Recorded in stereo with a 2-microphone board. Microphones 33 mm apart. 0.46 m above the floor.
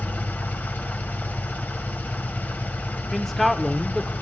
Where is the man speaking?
10° left (ahead or behind), 0.8 m.